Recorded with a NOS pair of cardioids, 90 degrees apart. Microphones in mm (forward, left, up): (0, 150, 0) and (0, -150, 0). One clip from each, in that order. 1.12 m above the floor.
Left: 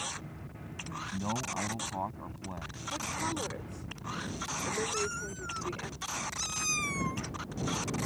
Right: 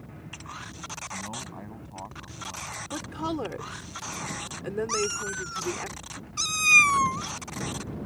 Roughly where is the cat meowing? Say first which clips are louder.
Right 6 dB; ahead right.